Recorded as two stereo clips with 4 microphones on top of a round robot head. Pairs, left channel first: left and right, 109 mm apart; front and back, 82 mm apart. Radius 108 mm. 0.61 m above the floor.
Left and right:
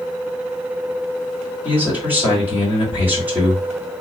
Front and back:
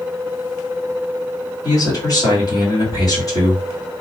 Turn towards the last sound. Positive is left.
turn(degrees=-20)